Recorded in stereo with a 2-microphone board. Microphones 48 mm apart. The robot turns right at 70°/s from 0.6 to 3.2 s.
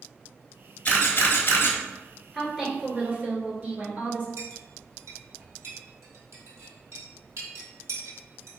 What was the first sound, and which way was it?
A camera shutter, 35° left (ahead or behind).